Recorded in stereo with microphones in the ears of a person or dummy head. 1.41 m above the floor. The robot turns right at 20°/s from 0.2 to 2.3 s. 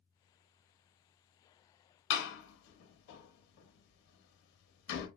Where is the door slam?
60° left (ahead or behind), 1.0 m; by 5.1 s 65° left (ahead or behind), 1.0 m.